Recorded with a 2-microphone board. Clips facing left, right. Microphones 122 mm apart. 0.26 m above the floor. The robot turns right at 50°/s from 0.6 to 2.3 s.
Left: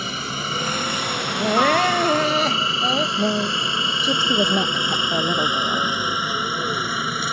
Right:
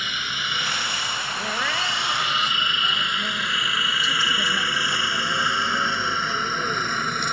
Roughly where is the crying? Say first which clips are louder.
Left 13 dB; ahead left.